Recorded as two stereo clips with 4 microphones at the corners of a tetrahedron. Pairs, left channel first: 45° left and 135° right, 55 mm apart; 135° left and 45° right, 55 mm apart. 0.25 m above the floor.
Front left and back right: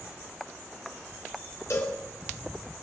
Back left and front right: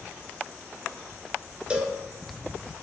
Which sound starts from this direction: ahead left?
A cowbell, at 1.7 s.